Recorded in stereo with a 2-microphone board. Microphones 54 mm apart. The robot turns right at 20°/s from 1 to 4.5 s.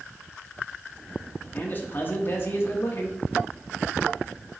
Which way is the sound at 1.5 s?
35° left.